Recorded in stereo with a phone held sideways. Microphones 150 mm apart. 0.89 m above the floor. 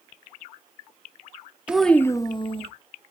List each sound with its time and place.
1.7 s a child speaking: 10° right (ahead or behind), 0.7 m; by 2.7 s 40° left (ahead or behind), 1.2 m